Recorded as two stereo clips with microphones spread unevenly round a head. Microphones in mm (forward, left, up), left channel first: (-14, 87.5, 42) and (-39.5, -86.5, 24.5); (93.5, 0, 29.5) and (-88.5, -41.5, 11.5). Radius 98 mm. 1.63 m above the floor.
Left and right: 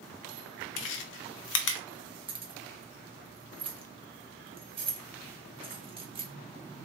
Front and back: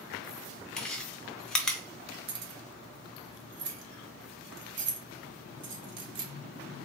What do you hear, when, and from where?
0.8 s chewing: 100° left, 0.7 m
2.3 s keys jangling: 155° right, 0.9 m